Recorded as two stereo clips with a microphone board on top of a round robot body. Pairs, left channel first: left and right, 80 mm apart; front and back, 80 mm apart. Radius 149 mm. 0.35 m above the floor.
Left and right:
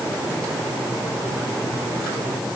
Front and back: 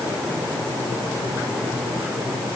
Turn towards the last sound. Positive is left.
No sound to turn to.